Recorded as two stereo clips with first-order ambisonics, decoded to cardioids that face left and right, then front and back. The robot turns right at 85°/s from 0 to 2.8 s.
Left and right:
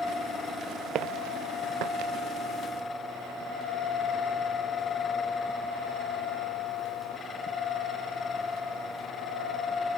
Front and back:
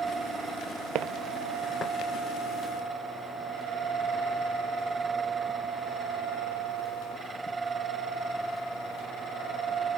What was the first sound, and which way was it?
Footsteps, 140° right.